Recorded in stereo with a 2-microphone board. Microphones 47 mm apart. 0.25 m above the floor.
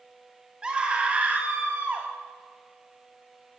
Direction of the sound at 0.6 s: 20° right (ahead or behind).